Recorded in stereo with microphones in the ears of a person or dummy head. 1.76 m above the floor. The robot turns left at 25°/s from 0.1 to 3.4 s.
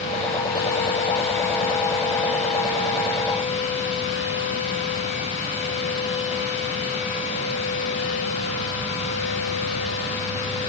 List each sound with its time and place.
Only background noise.